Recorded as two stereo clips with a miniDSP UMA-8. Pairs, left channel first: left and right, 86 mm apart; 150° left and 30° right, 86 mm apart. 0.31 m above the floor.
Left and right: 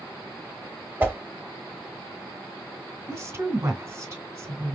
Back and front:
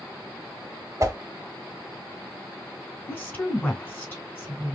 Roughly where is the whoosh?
Ahead right.